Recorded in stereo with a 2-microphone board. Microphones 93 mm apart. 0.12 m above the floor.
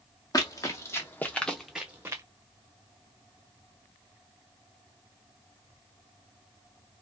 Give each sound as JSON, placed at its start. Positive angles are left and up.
{"t": 0.3, "sound": "running footsteps", "side_deg": 40, "distance_m": 1.0}